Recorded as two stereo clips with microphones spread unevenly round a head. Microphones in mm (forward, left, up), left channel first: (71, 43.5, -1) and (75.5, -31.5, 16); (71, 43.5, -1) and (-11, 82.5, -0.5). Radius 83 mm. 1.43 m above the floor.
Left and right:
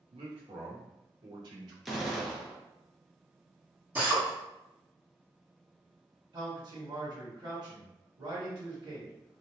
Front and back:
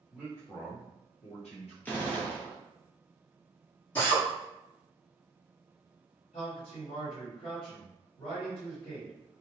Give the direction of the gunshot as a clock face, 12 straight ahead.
1 o'clock.